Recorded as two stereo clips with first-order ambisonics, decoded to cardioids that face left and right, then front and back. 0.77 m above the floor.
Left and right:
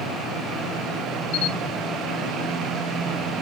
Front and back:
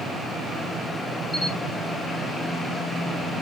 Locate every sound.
1.3 s a camera shutter: 75° left, 1.0 m